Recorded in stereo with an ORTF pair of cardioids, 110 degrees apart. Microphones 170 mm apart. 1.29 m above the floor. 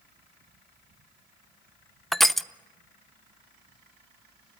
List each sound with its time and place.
2.1 s crushing: straight ahead, 0.6 m